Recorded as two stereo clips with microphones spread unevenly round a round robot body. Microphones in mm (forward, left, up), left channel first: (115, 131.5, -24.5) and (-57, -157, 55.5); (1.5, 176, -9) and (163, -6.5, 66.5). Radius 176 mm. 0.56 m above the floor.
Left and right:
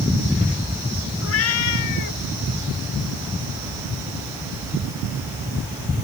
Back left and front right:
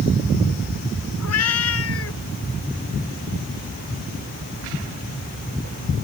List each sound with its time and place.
1.2 s a cat meowing: 120° left; by 2.2 s 95° left